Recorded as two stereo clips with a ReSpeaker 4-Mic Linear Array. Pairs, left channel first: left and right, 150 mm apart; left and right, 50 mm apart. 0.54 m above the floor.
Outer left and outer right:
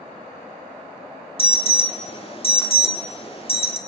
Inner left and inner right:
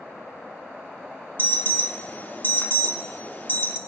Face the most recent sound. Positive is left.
turn(degrees=40)  # may be behind; listen again after turning